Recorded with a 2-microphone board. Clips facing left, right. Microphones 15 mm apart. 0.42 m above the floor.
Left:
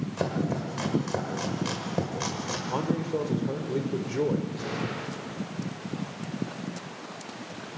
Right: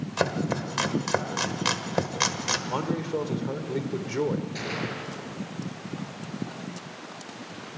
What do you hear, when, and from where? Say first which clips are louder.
0.2 s chopping: right 3 dB; 45° right (ahead or behind), 1.6 m
2.7 s a man speaking: even; 20° right (ahead or behind), 1.5 m
4.5 s a gunshot: right 1 dB; 80° right, 7 m